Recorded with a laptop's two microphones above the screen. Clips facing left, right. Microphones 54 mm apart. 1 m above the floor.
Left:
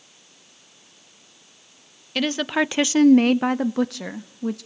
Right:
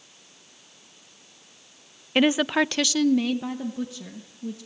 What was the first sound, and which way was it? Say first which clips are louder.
A woman speaking: right 2 dB; 25° right (ahead or behind).